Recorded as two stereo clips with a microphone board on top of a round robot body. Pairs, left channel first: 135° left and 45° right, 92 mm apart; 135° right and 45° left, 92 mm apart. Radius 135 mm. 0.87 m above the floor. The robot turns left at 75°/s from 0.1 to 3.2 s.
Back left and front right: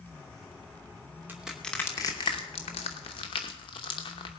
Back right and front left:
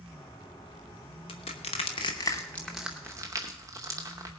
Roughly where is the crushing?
Behind right.